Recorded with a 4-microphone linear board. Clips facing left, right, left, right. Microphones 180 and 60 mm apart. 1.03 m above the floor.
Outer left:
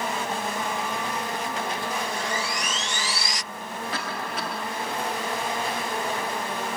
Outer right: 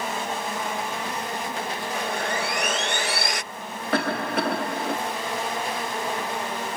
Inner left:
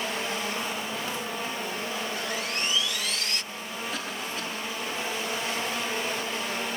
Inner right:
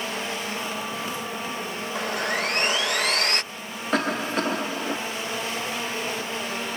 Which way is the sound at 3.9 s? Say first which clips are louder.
Outer right 11 dB, inner right 14 dB; 60° right (ahead or behind).